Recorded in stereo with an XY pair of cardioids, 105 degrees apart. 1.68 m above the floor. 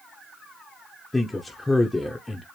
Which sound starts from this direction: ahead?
A man speaking, at 1.1 s.